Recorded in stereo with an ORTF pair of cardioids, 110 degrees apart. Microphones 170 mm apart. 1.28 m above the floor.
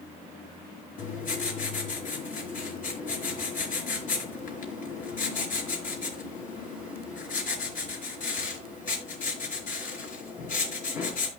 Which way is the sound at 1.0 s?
55° left.